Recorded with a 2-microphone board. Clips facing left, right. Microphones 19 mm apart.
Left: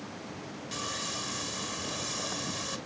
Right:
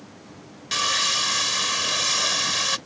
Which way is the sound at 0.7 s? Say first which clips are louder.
Right 14 dB; 75° right (ahead or behind).